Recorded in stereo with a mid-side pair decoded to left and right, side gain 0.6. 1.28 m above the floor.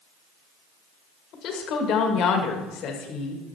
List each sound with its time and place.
1.3 s a woman speaking: 60° left, 1.4 m